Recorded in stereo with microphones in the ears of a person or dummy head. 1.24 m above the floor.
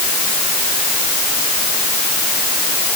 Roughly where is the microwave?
I don't hear a microwave.